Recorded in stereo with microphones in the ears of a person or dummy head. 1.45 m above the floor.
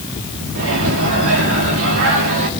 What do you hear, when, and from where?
0.6 s a microwave: 60° right (ahead or behind), 2.5 m